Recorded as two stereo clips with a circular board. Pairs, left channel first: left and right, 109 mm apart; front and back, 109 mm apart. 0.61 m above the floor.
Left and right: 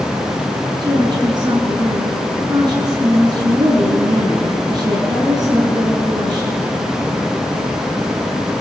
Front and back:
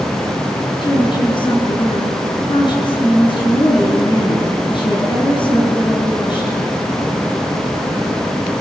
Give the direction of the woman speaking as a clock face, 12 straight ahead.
1 o'clock.